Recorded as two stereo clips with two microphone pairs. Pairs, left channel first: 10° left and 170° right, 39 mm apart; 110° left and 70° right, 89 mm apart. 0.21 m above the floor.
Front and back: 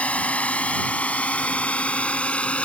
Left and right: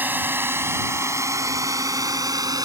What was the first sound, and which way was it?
A drone, 15° right.